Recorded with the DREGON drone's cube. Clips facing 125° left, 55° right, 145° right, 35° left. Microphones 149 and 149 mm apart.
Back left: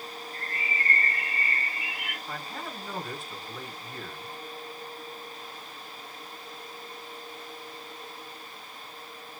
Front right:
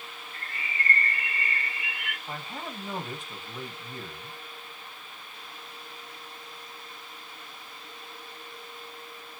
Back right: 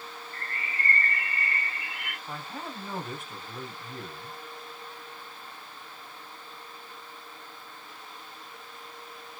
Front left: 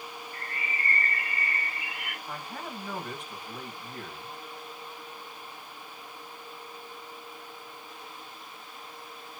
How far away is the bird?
About 2 m.